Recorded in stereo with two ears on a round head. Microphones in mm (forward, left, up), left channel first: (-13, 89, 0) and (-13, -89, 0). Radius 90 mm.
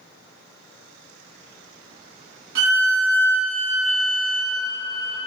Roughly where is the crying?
No crying in this recording.